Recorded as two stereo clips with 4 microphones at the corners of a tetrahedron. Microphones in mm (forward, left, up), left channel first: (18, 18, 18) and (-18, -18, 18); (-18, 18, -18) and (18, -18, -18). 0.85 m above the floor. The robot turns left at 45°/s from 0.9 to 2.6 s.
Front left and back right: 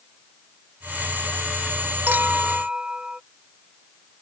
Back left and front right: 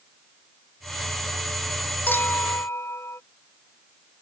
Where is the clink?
Straight behind; by 3.2 s 155° left.